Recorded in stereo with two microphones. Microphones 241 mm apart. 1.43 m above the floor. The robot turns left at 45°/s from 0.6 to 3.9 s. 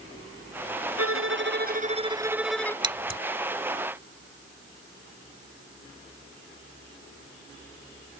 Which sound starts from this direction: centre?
Scissors, at 2.8 s.